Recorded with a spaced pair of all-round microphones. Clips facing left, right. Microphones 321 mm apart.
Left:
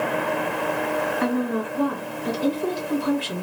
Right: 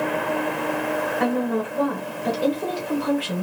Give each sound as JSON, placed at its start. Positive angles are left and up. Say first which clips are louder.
{"t": 1.2, "sound": "a woman speaking", "louder": "right 2 dB", "side_deg": -85, "distance_m": 1.0}